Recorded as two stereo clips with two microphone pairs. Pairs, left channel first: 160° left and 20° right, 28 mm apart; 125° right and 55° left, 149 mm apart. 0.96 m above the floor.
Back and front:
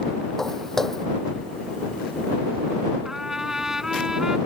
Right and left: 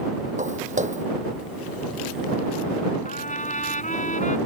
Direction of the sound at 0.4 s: 85° left.